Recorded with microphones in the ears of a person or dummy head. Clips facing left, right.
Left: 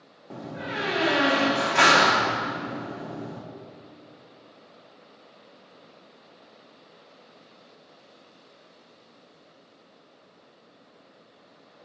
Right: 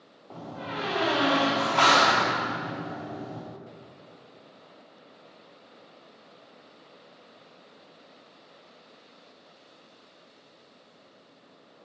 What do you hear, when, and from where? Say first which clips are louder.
0.3 s a door slam: left 2 dB; 25° left (ahead or behind), 0.8 m